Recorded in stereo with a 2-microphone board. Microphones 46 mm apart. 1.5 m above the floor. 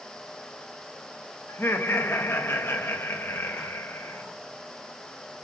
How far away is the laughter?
About 2 m.